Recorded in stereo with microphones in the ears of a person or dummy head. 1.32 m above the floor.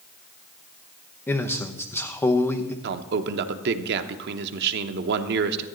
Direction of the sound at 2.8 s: 50° right (ahead or behind).